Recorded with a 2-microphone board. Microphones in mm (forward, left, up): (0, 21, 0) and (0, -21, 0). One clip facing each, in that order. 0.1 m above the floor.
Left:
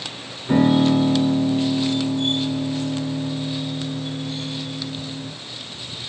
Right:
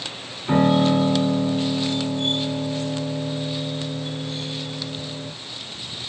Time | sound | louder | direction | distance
0.5 | a piano | left 1 dB | 45° right (ahead or behind) | 6.5 m